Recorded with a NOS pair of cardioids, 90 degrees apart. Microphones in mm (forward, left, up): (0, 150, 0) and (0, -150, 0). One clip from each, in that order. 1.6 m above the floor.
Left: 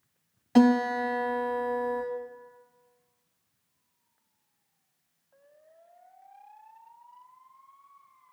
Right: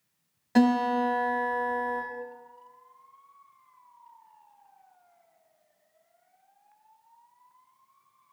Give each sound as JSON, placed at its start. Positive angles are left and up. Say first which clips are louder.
{"t": 0.6, "sound": "a guitar", "louder": "left 1 dB", "azimuth_deg": -5, "distance_m": 2.0}